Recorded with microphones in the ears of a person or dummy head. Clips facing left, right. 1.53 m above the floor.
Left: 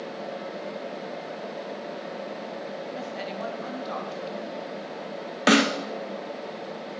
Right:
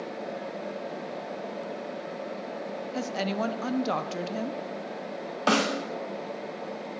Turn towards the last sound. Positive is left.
turn(degrees=30)  # may be behind; listen again after turning